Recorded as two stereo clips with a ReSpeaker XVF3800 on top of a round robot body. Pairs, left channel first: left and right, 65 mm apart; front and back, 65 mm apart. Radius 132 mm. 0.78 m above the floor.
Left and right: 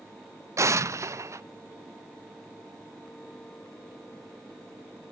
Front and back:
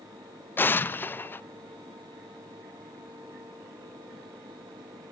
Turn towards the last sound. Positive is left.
turn(degrees=-55)